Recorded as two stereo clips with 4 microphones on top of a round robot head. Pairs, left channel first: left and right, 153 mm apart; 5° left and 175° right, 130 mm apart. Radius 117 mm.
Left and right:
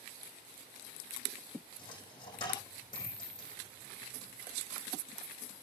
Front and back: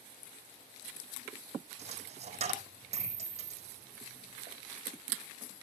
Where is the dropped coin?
155° left, 5 m.